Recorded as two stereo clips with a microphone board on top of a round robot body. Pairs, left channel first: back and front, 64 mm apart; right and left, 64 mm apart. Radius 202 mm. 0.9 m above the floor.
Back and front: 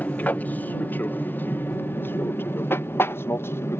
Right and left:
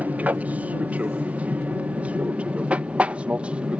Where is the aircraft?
135° left; by 3.8 s 155° left.